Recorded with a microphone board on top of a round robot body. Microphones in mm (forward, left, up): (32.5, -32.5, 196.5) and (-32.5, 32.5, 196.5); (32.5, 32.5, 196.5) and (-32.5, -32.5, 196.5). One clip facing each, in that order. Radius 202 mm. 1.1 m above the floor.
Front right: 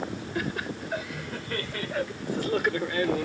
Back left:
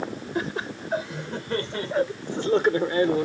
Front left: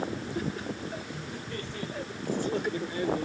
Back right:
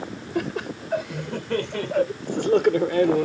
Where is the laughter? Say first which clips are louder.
Back left 3 dB, back right 10 dB; 160° right.